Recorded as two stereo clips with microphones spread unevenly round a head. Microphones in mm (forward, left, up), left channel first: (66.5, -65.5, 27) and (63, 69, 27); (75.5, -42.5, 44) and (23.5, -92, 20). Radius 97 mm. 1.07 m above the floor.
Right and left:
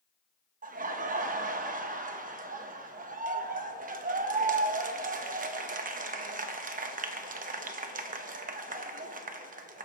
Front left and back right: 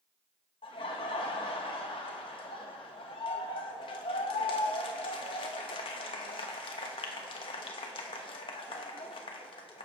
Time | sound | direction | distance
0.6 | laughter | 75° left | 1.2 m